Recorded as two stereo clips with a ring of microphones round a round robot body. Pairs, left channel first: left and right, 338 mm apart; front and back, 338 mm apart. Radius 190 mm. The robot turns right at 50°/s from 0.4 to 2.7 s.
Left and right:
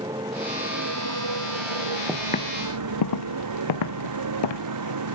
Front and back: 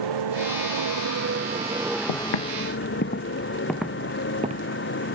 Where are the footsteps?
Straight ahead; by 4.7 s 110° left.